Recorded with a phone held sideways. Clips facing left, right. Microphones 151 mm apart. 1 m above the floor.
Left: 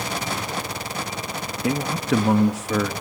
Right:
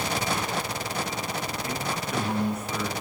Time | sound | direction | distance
1.6 | a man speaking | 75° left (ahead or behind) | 1.3 m